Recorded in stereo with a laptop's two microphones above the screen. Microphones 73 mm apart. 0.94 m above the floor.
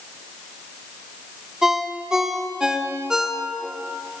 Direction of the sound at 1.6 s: 10° right (ahead or behind).